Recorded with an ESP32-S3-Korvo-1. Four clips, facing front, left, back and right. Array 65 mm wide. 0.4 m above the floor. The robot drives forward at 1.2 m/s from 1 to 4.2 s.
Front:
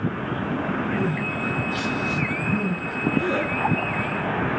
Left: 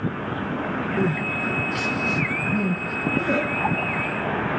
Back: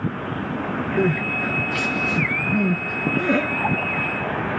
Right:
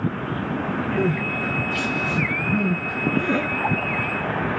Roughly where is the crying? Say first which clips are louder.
Even, back 4 dB; behind left.